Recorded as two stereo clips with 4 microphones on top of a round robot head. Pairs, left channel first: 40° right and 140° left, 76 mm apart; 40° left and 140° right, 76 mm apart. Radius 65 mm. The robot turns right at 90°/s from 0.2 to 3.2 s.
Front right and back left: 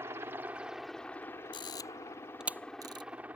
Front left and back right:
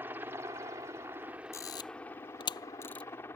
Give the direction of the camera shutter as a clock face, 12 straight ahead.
1 o'clock.